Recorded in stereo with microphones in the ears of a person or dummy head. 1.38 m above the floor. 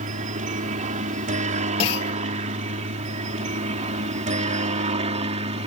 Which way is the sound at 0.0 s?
40° right (ahead or behind).